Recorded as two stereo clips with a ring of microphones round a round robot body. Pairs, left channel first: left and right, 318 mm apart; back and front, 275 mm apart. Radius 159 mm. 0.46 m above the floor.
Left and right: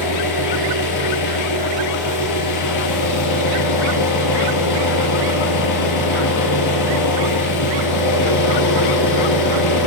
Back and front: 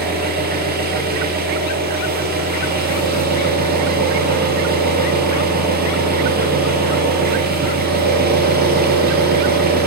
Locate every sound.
0.0 s an engine running: 55° left, 9.5 m